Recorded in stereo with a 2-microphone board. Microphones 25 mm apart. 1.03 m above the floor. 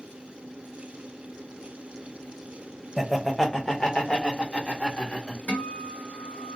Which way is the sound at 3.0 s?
Centre (ahead or behind).